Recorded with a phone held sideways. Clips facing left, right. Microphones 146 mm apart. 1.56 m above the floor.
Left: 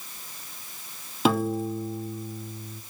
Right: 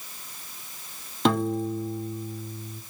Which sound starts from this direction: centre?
A piano, at 1.2 s.